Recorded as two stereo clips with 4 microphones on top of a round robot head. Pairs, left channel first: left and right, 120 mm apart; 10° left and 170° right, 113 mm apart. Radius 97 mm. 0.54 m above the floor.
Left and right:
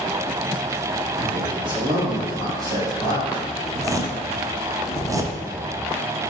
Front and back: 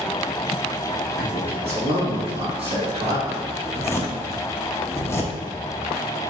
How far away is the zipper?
About 0.6 m.